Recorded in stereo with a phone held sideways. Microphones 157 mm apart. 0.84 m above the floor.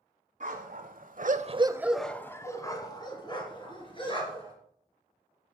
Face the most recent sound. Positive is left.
turn(degrees=35)  # may be behind; listen again after turning